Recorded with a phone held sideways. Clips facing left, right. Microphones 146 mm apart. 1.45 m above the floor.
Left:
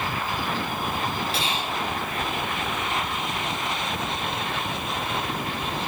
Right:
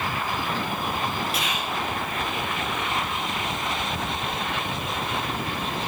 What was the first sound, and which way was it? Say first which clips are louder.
Whispering: even; 30° left (ahead or behind).